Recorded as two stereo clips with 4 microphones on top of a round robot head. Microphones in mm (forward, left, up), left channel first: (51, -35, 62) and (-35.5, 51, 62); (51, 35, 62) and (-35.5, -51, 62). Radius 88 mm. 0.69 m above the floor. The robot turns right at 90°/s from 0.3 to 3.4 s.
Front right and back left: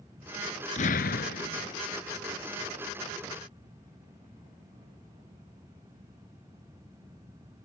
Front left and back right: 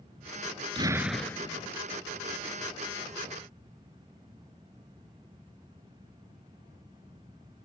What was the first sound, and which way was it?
An explosion, 80° right.